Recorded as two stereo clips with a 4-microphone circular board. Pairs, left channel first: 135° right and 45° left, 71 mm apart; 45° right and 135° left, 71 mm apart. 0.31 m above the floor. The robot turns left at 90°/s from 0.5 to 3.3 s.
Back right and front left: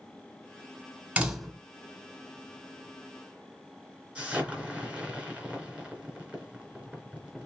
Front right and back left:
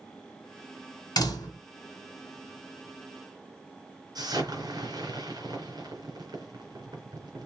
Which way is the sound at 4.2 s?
115° left.